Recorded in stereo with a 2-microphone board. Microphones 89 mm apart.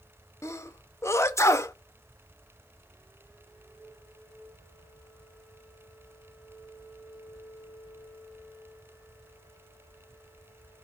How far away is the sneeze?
About 0.6 m.